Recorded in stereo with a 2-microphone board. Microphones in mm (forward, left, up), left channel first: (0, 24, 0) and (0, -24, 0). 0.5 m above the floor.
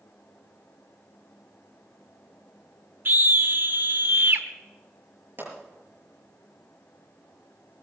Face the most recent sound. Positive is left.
turn(degrees=-45)  # may be behind; listen again after turning